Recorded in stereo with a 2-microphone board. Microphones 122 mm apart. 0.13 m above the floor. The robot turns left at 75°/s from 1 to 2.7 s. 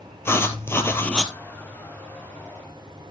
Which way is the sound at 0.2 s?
20° left (ahead or behind).